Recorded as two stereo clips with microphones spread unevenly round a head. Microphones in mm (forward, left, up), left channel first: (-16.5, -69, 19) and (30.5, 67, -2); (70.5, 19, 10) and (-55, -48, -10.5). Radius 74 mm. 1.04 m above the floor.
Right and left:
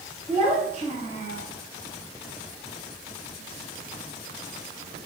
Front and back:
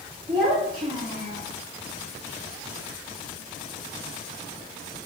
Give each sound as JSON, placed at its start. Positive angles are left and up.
{"t": 0.3, "sound": "a child speaking", "azimuth_deg": 150, "distance_m": 1.9}